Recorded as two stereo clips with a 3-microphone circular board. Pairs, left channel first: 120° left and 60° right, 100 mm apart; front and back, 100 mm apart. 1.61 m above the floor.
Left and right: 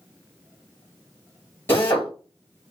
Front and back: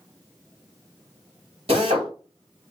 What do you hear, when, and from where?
1.7 s a drill: 175° right, 3.5 m